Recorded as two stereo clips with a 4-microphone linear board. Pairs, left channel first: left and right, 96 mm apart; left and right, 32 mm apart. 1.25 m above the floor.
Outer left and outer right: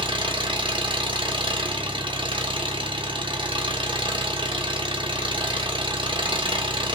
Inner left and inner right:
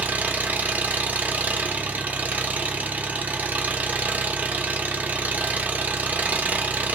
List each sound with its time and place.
0.0 s an engine running: 60° right (ahead or behind), 0.8 m